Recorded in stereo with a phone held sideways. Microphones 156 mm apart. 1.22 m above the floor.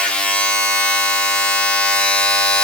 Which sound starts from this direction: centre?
A machine running, at 0.0 s.